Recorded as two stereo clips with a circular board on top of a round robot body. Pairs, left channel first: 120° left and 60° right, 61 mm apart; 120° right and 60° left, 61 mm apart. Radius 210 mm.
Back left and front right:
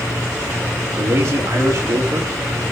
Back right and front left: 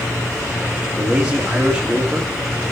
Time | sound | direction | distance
1.0 | a man speaking | 20° right | 3 m